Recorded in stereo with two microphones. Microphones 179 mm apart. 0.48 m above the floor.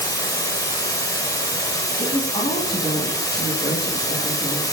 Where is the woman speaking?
30° left (ahead or behind), 3.5 m.